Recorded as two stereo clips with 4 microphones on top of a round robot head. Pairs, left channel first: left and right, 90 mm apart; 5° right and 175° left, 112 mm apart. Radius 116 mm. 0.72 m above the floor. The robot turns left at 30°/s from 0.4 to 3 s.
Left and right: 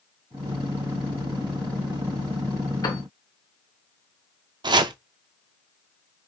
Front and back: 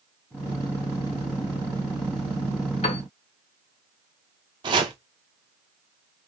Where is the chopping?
130° right, 0.5 m.